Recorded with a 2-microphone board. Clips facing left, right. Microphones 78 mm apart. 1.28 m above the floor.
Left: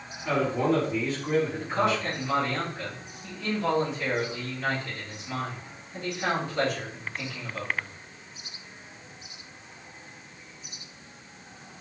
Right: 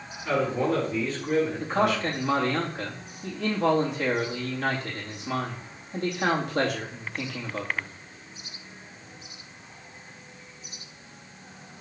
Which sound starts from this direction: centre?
A man speaking, at 0.2 s.